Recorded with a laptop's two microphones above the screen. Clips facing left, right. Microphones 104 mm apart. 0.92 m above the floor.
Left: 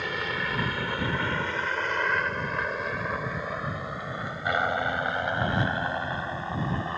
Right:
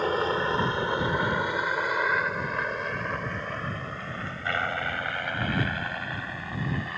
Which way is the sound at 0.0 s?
35° right (ahead or behind).